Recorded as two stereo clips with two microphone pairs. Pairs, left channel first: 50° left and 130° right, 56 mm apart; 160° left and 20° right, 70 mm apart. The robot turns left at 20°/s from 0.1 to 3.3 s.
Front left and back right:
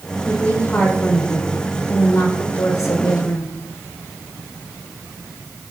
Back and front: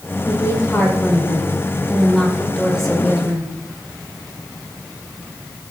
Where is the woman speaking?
120° left, 5 m; by 3.5 s 60° left, 5 m.